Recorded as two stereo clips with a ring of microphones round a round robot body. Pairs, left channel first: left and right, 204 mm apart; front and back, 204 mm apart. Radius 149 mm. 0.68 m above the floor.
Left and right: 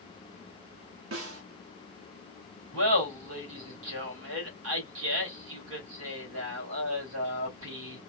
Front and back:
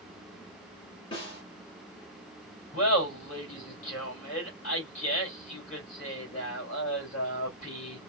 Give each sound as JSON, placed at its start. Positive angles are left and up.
{"t": 1.1, "sound": "a snare drum", "azimuth_deg": -70, "distance_m": 1.2}
{"t": 2.7, "sound": "laughter", "azimuth_deg": -65, "distance_m": 3.5}